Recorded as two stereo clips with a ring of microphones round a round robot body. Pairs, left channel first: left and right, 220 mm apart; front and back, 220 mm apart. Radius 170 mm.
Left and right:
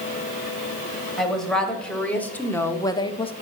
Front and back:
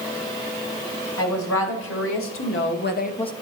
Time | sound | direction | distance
1.2 | a woman speaking | straight ahead | 3 m